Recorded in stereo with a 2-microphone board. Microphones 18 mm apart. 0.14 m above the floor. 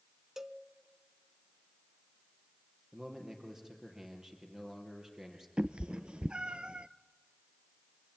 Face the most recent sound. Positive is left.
turn(degrees=-65)  # may be behind; listen again after turning